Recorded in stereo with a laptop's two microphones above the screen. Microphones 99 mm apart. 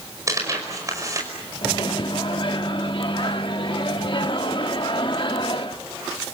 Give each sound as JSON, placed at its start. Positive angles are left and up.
{"t": 0.3, "sound": "tearing paper", "side_deg": -35, "distance_m": 5.5}
{"t": 1.6, "sound": "a microwave", "side_deg": 55, "distance_m": 1.3}